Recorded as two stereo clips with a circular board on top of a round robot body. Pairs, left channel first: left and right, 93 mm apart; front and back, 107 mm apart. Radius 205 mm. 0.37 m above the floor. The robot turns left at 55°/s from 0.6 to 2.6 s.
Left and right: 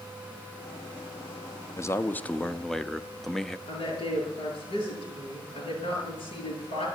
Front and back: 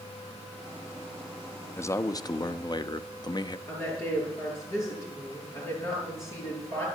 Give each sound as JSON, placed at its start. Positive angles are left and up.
{"t": 1.8, "sound": "a man speaking", "azimuth_deg": 50, "distance_m": 0.9}
{"t": 3.7, "sound": "a woman speaking", "azimuth_deg": 65, "distance_m": 8.0}